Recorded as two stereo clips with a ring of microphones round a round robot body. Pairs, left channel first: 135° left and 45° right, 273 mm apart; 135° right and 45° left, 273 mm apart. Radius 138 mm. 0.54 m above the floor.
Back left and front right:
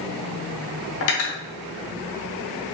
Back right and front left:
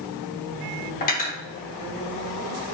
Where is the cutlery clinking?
170° left, 0.7 m.